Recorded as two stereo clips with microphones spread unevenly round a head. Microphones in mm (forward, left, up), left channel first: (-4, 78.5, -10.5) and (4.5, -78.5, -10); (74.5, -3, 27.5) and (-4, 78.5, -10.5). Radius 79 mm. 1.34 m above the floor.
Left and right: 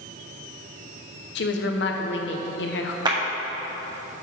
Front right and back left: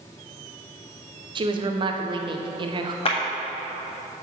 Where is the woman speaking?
105° left, 1.0 m.